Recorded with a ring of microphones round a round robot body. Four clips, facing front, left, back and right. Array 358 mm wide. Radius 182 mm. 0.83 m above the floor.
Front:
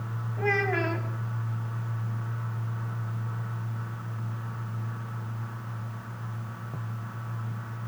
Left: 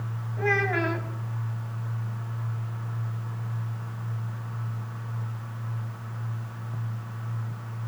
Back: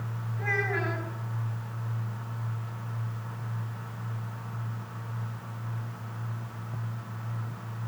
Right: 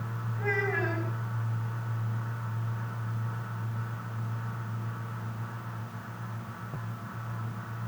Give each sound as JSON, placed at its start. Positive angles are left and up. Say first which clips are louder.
{"t": 0.4, "sound": "a child speaking", "louder": "left 5 dB, front 4 dB", "azimuth_deg": 55, "distance_m": 5.5}